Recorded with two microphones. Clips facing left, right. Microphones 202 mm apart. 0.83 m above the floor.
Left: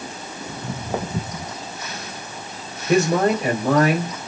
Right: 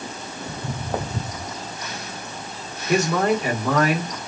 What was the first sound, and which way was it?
Footsteps, 5° left (ahead or behind).